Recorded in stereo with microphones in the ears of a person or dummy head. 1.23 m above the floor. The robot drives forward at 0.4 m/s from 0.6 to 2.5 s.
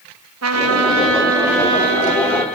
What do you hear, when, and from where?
0.4 s a trumpet: 75° right (ahead or behind), 1.3 m; by 2.5 s 50° right (ahead or behind), 1.6 m